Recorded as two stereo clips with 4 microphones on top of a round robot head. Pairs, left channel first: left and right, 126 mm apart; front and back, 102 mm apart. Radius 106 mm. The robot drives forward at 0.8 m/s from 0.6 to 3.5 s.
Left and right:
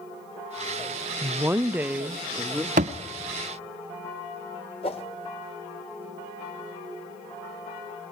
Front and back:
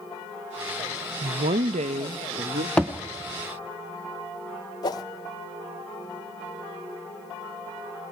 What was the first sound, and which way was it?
A woman speaking, 155° right.